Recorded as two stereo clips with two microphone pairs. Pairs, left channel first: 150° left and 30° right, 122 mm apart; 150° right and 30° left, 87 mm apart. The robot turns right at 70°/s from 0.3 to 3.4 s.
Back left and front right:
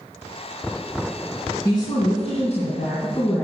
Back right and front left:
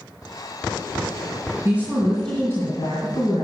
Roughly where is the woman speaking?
Left.